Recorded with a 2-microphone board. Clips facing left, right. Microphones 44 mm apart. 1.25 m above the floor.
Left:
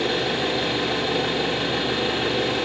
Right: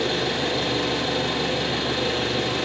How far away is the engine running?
About 2 m.